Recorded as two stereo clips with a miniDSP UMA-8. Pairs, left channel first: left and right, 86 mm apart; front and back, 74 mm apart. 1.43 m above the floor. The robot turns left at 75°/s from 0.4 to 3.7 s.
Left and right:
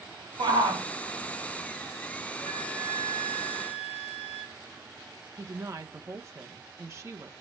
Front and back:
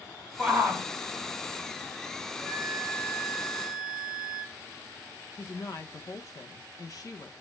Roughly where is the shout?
Right.